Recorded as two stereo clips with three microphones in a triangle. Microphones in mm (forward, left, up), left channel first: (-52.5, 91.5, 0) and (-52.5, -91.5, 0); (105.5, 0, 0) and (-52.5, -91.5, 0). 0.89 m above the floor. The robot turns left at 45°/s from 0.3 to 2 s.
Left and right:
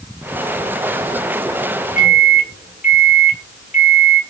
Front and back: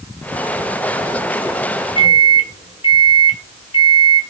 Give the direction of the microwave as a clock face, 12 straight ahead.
9 o'clock.